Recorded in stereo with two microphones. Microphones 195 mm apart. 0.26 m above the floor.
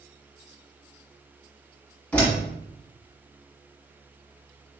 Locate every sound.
2.1 s a door slam: 5° left (ahead or behind), 1.6 m